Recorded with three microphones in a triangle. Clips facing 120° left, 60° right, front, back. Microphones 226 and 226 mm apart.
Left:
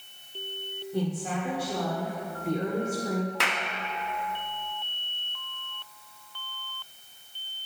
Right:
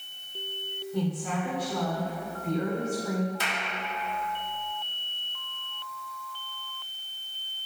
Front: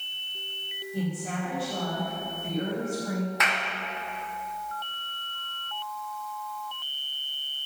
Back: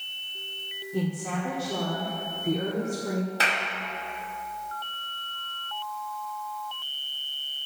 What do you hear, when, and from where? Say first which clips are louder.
0.9 s a woman speaking: even, back 2 dB; straight behind, 2 m
3.4 s a clap: left 2 dB, back 1 dB; 125° left, 0.8 m